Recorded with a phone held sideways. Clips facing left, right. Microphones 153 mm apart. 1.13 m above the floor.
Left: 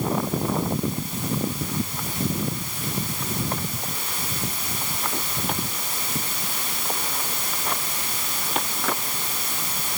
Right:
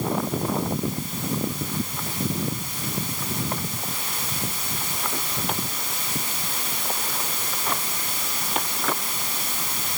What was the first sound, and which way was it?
Only background noise.